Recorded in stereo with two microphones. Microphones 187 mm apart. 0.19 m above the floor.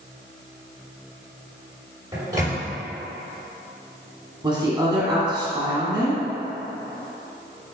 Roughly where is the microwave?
Right.